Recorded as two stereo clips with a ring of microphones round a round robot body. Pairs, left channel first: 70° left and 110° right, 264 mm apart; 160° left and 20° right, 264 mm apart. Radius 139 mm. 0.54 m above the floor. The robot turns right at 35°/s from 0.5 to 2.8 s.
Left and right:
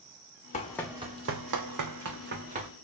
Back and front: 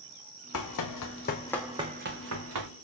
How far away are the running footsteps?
About 1.3 m.